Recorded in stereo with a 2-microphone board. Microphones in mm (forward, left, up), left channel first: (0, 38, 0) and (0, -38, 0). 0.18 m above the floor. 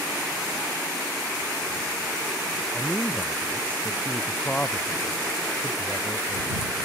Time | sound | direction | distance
2.7 | a man speaking | 15° left (ahead or behind) | ?